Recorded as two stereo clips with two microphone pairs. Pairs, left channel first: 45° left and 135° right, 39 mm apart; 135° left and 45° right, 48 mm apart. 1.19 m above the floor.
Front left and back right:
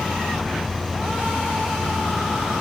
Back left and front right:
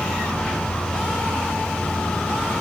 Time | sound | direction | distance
0.0 | an insect | 115° left | 2.5 m